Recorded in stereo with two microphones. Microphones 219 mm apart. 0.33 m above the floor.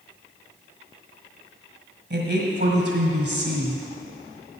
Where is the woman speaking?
50° right (ahead or behind), 1.7 m.